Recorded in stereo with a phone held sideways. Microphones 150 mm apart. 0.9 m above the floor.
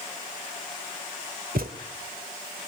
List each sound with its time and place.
1.6 s a thud: 80° right, 1.8 m